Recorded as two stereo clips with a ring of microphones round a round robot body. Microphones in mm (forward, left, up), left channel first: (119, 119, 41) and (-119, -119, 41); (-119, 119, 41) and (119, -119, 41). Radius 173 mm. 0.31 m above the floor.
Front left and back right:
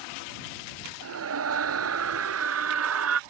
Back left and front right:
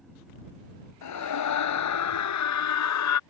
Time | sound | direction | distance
1.0 | a scream | 175° left | ?